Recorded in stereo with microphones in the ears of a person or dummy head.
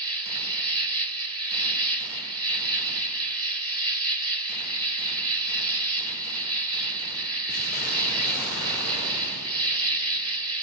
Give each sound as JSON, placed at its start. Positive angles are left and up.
{"t": 0.0, "sound": "an insect", "side_deg": -20, "distance_m": 1.2}